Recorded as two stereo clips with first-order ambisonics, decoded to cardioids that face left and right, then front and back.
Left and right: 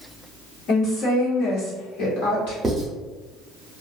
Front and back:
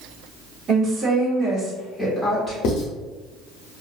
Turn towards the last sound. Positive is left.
turn(degrees=-10)